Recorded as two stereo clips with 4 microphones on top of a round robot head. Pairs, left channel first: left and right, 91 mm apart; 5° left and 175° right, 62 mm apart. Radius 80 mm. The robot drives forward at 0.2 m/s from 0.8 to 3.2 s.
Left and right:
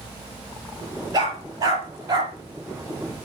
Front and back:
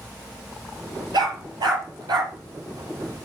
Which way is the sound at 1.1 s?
150° right.